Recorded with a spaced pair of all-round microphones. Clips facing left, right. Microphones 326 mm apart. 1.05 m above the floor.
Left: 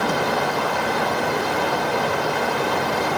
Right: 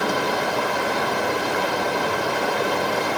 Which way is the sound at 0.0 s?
65° left (ahead or behind).